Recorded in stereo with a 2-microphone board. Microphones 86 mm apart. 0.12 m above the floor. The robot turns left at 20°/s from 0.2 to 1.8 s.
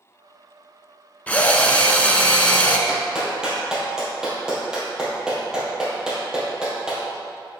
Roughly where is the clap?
Centre.